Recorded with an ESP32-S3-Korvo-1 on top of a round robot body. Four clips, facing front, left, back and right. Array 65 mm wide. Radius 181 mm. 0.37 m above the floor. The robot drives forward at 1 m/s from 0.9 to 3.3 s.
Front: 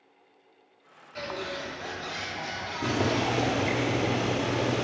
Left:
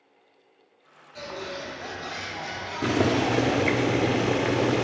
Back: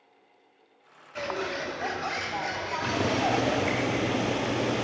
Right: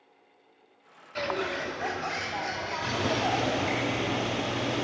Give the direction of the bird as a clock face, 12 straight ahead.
4 o'clock.